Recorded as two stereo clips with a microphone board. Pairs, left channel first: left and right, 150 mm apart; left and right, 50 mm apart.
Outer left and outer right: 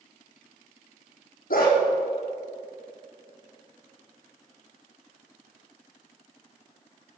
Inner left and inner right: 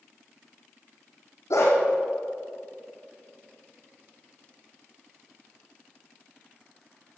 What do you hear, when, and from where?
1.5 s a dog barking: 80° left, 5 m